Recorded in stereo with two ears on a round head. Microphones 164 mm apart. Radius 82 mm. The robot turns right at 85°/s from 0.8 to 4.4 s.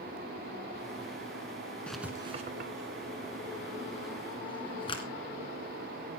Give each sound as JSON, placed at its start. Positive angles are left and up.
{"t": 1.9, "sound": "writing", "side_deg": 10, "distance_m": 1.6}